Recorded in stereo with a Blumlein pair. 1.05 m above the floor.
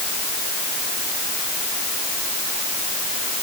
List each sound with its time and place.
Only background noise.